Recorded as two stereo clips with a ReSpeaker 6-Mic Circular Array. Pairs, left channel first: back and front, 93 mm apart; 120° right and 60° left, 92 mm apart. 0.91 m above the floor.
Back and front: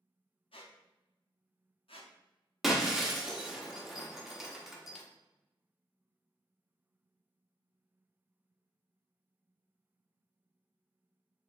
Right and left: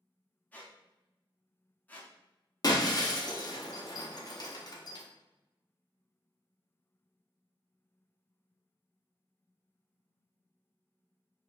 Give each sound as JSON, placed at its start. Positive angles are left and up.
{"t": 0.5, "sound": "a squeak", "azimuth_deg": 170, "distance_m": 0.6}
{"t": 2.6, "sound": "breaking glass", "azimuth_deg": -85, "distance_m": 0.6}